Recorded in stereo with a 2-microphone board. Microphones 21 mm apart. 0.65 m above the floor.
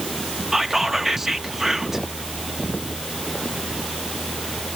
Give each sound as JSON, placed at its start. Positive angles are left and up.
{"t": 0.5, "sound": "whispering", "side_deg": -15, "distance_m": 0.8}